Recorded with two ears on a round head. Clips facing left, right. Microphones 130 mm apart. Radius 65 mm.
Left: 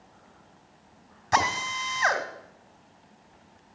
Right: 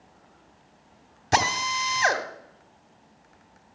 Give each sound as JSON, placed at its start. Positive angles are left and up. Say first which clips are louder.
{"t": 1.3, "sound": "a drill", "louder": "right 1 dB", "side_deg": -35, "distance_m": 1.4}